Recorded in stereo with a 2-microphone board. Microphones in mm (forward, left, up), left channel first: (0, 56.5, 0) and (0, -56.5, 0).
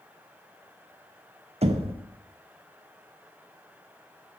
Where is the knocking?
55° right (ahead or behind), 0.6 m.